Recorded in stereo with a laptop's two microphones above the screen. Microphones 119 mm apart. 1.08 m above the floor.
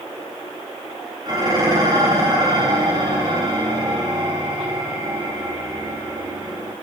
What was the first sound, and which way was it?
Dishes clattering, 35° right (ahead or behind).